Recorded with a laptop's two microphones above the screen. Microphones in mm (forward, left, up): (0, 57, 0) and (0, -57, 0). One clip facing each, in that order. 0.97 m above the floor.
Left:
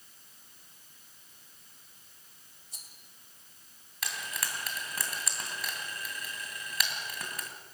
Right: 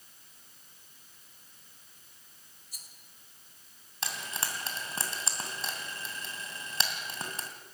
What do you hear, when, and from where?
2.7 s a rattle: 30° left (ahead or behind), 2 m
4.0 s frying: 30° right (ahead or behind), 2.5 m